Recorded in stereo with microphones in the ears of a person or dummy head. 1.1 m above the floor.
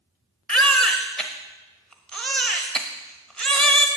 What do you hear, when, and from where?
0.5 s a baby crying: 5° left (ahead or behind), 1.1 m